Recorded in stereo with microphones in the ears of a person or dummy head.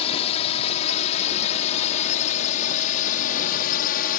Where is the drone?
35° left (ahead or behind); by 4.2 s 50° left (ahead or behind).